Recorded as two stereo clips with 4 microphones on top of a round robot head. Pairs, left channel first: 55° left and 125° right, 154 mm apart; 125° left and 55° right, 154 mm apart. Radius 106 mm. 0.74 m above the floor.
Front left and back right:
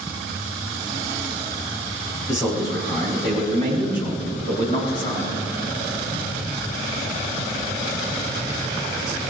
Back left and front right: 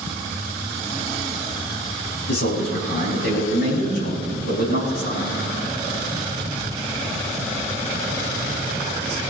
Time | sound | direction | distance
2.3 | a man speaking | 125° left | 6 m